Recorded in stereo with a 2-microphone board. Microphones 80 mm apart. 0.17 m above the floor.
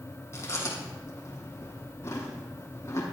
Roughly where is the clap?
I don't hear a clap.